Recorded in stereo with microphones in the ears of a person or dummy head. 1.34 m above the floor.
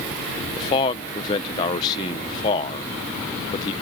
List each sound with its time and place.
0.6 s a man speaking: 40° left (ahead or behind)